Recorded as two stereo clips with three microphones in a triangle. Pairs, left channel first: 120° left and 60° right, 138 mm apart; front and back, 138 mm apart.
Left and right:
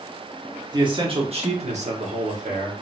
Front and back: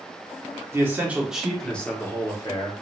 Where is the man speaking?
115° right, 1.2 m; by 2.7 s 60° right, 1.4 m.